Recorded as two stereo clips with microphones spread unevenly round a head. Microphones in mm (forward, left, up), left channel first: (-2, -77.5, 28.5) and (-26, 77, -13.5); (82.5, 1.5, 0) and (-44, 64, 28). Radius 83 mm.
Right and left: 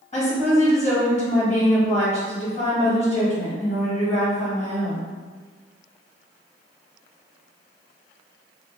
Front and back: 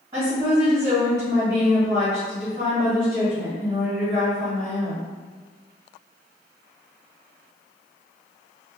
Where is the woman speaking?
135° right, 1.4 m.